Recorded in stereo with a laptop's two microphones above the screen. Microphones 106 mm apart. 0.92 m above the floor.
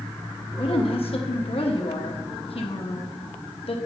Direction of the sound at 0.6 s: 65° left (ahead or behind).